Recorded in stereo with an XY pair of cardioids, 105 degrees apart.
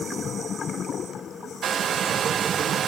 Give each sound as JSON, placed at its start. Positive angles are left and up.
{"t": 1.6, "sound": "a hair dryer", "azimuth_deg": -55, "distance_m": 0.6}